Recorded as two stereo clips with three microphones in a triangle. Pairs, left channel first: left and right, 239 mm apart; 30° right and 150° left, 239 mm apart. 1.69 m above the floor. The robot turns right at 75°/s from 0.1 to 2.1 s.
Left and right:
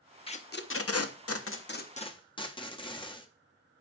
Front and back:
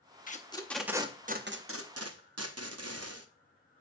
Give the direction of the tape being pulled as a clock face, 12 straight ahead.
11 o'clock.